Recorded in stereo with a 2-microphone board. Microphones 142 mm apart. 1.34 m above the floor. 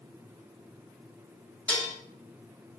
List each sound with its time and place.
1.7 s dishes clattering: 10° left (ahead or behind), 2 m